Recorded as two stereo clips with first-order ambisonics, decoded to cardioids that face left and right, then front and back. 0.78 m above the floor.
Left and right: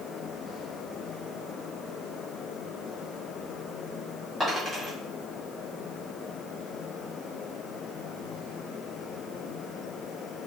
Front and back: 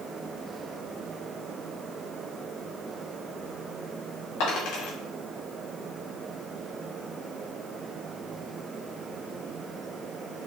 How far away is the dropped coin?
About 2.5 m.